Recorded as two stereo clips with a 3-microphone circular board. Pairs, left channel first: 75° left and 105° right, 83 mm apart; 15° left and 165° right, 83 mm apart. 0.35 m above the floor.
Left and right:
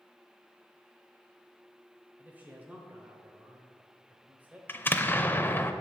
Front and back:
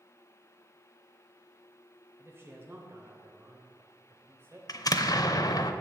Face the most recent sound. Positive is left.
turn(degrees=20)